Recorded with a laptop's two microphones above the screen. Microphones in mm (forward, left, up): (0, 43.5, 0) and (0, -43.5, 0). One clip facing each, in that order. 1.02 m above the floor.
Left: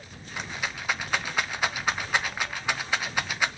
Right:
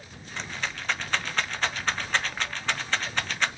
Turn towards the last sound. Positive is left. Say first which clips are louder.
# left 1 dB
turn(degrees=10)  # may be behind; listen again after turning